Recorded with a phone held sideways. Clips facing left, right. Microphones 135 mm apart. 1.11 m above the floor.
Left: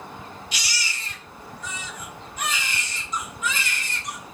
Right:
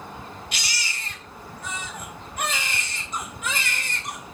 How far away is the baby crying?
About 3.5 m.